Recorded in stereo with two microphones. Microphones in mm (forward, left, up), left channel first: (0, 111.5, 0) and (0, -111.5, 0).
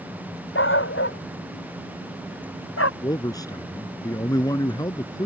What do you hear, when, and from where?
0.6 s a dog barking: 60° left (ahead or behind); by 2.9 s 75° left (ahead or behind)
3.0 s a man speaking: 15° left (ahead or behind)